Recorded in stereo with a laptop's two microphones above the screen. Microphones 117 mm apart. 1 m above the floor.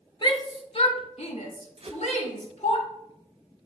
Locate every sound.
0.2 s a shout: 40° left (ahead or behind), 2.0 m; by 2.8 s 65° left (ahead or behind), 2.5 m
1.8 s a whoosh: 55° right (ahead or behind), 1.0 m